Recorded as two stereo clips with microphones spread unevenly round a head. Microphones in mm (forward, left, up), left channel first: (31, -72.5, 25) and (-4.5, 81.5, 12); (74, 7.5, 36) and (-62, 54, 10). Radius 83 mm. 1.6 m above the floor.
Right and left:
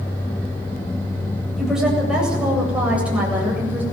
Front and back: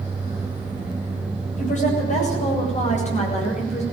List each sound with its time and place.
1.6 s a woman speaking: 15° left, 8.5 m; by 3.8 s 25° left, 8 m